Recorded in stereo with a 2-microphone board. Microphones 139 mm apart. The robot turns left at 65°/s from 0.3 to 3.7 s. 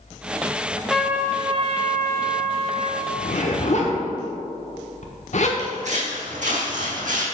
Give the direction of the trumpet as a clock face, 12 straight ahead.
12 o'clock.